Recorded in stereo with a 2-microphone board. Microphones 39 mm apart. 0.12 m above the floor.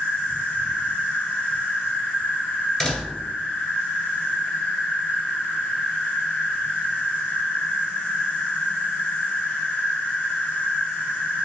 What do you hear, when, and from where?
0.0 s an insect: 60° left (ahead or behind), 2 m
2.8 s a door slam: 15° left (ahead or behind), 1.6 m